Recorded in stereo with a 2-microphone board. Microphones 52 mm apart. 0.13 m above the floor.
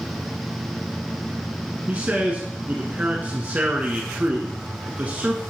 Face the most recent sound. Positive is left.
turn(degrees=-30)  # may be behind; listen again after turning